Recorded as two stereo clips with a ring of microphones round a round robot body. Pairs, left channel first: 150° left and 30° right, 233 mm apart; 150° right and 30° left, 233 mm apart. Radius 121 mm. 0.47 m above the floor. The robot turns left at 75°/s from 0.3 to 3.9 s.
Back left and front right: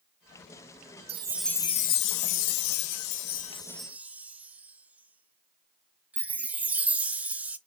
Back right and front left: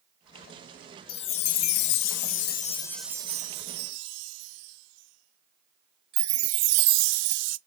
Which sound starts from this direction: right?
A chime, at 1.1 s.